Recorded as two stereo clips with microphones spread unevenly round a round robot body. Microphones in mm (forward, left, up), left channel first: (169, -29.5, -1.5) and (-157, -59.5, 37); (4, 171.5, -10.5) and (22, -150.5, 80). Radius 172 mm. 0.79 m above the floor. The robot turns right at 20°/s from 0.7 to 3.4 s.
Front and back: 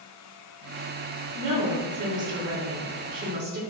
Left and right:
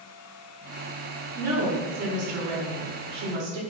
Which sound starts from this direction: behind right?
A woman speaking, at 1.4 s.